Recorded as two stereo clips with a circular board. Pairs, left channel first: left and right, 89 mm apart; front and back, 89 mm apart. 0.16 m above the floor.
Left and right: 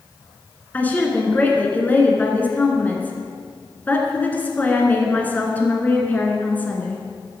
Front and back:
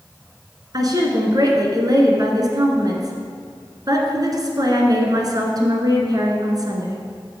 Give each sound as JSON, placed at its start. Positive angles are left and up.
{"t": 0.7, "sound": "a woman speaking", "azimuth_deg": 155, "distance_m": 1.7}